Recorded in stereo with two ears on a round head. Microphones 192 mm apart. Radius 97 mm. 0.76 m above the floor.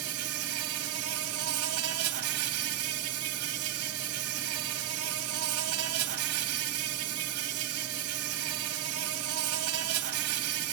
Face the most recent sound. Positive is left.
turn(degrees=-75)  # may be behind; listen again after turning